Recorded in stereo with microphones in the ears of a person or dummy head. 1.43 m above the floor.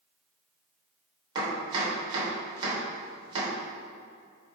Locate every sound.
1.4 s chopping: 30° right (ahead or behind), 3 m